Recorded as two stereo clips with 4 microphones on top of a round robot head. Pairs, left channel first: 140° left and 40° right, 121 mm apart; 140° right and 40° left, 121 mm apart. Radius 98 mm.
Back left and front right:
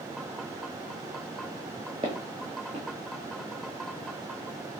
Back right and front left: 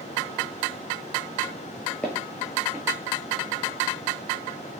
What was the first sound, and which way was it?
Footsteps, 60° right.